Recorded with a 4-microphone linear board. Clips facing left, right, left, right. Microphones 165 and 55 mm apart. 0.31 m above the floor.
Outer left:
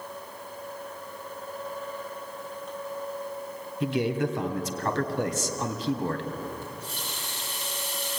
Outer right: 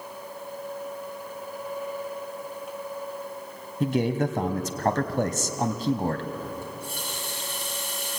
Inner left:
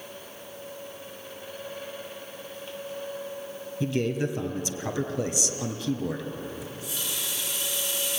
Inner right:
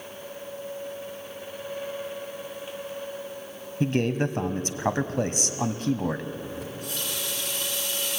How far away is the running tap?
About 7 m.